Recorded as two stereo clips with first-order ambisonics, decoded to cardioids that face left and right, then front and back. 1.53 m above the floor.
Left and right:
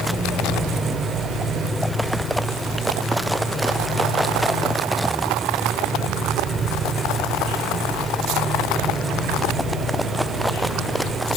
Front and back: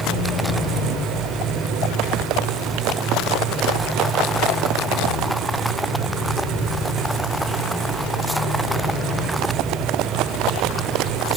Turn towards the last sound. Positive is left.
No sound to turn to.